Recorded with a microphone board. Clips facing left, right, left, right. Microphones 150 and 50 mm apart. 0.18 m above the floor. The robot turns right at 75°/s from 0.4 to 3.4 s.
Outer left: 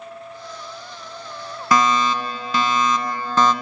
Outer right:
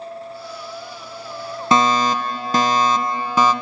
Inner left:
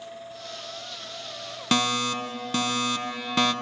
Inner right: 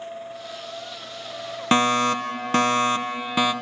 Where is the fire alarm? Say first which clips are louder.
Outer right 2 dB, inner right 6 dB; 140° right, 2.5 m; by 3.5 s 15° right, 2.5 m.